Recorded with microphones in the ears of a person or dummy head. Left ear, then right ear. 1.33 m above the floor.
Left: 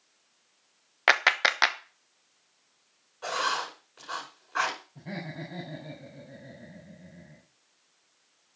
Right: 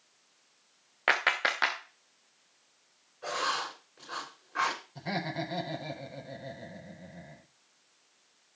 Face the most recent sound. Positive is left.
turn(degrees=-50)  # may be behind; listen again after turning